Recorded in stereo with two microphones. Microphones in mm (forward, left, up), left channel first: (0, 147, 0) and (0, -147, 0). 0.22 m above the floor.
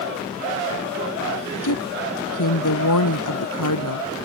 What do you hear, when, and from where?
1.6 s a woman speaking: 80° left